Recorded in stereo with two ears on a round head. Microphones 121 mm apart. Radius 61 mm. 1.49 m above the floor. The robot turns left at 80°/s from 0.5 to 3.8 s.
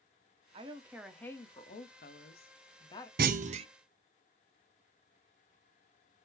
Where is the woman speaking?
135° right, 0.9 m; by 3.1 s 20° left, 0.9 m.